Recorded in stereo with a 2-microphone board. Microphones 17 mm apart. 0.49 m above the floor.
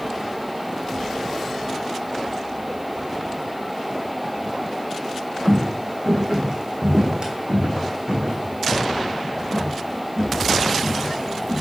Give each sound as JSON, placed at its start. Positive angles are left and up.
{"t": 5.5, "sound": "footsteps", "side_deg": -25, "distance_m": 1.7}